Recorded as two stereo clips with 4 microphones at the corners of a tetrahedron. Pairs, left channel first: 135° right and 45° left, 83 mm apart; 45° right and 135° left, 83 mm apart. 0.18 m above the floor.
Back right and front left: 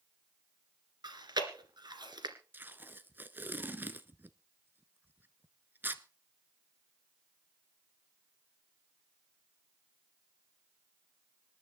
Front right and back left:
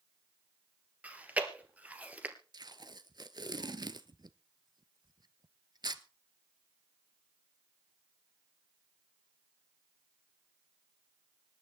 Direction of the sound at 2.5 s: 110° left.